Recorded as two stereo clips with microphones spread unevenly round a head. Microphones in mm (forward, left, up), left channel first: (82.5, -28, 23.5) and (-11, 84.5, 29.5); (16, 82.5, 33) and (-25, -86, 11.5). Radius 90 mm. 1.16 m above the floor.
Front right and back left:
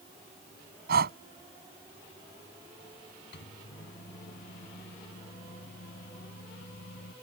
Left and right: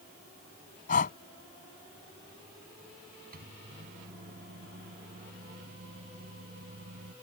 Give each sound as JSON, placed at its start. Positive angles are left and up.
{"t": 0.9, "sound": "breathing", "azimuth_deg": 120}
{"t": 3.3, "sound": "a microwave", "azimuth_deg": -65}